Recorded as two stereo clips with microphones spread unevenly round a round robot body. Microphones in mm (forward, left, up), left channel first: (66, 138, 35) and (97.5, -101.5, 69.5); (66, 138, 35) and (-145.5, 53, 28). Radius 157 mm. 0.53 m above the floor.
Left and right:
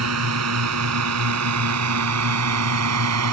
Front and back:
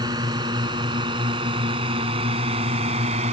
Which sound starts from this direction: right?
A drone, at 0.0 s.